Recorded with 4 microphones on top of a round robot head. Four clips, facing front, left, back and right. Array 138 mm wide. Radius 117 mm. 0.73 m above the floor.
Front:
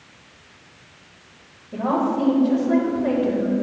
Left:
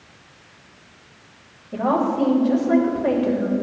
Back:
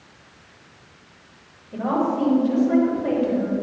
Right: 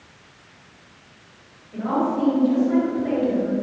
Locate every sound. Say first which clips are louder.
1.7 s a woman speaking: left 2 dB, front 1 dB; 70° left, 3 m